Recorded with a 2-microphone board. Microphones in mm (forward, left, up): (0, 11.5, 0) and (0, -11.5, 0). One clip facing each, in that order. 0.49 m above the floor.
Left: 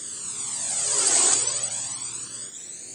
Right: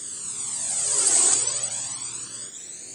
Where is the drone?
5° left (ahead or behind); by 3.0 s centre (ahead or behind).